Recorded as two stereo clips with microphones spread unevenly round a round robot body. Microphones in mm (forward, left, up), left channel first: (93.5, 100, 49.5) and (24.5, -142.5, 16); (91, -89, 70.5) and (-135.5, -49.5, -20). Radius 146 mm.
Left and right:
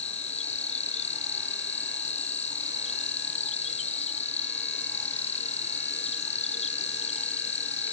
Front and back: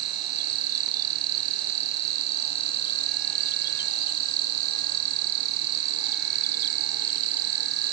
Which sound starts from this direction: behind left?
An insect, at 0.0 s.